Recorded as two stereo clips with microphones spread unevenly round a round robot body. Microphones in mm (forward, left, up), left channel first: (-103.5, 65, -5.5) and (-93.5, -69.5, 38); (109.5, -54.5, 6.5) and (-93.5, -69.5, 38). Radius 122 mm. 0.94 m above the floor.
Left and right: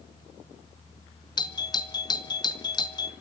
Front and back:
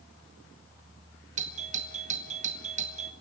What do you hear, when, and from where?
1.4 s a doorbell: 125° left, 1.5 m